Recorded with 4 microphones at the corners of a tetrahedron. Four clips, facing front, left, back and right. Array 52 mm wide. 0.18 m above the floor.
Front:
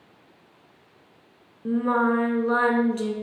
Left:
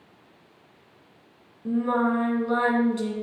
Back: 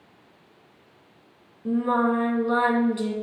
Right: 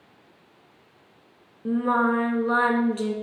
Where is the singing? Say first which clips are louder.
Right 2 dB, even; 55° right, 1.7 m.